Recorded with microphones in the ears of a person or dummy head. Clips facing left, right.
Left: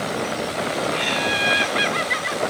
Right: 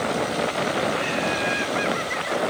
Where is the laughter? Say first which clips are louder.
Even; 45° left (ahead or behind), 2.5 m.